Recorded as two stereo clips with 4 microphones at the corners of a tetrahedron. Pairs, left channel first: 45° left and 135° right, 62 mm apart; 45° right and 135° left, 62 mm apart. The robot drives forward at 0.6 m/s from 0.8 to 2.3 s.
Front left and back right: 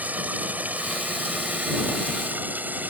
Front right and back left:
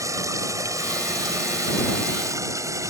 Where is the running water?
160° left; by 2.9 s 165° left.